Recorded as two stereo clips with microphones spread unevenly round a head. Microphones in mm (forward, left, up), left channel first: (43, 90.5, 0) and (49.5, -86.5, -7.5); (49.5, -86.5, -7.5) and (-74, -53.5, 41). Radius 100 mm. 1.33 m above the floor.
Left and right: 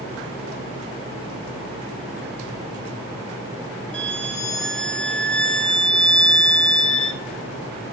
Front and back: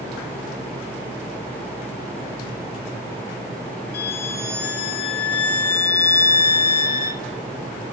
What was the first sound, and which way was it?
A violin, 5° left.